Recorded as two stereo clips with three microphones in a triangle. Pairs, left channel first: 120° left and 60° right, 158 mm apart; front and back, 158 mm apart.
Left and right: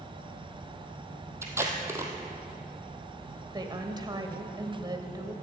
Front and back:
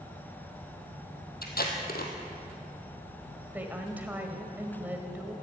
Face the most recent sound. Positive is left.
turn(degrees=-105)